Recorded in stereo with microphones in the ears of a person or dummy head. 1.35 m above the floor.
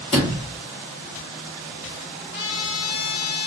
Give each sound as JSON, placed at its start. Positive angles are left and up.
{"t": 0.1, "sound": "a sliding door", "side_deg": 20, "distance_m": 0.9}
{"t": 2.3, "sound": "a trumpet", "side_deg": 65, "distance_m": 1.0}